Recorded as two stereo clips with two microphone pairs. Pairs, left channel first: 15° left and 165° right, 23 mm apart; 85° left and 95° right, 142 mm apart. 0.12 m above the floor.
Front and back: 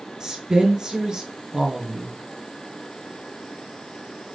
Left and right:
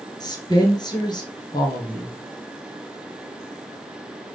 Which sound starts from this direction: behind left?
A woman speaking, at 0.2 s.